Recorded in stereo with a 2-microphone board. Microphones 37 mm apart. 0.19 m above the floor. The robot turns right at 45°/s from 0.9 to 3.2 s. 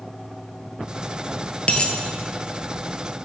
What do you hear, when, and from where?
1.7 s a dropped coin: 35° left (ahead or behind), 1.2 m; by 1.9 s 25° left (ahead or behind), 1.2 m